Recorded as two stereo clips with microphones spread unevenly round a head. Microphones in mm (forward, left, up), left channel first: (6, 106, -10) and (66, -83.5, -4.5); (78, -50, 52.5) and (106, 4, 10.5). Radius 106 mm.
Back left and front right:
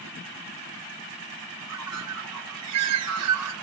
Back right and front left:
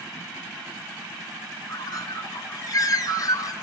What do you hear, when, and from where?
1.7 s a bird: 95° right, 2 m